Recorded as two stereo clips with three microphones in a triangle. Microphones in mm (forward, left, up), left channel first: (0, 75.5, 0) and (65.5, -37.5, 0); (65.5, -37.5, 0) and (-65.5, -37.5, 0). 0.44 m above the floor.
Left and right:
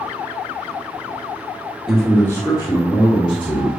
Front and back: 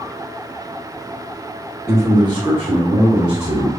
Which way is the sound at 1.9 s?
145° right.